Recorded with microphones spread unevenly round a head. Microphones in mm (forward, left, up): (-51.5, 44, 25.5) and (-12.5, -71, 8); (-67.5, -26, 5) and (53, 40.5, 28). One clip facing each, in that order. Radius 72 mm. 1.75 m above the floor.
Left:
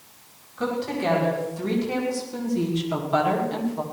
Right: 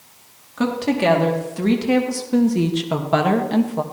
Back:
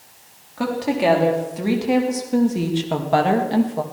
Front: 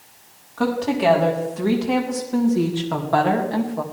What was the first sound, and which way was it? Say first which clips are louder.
A woman speaking: right 6 dB, even; 70° right.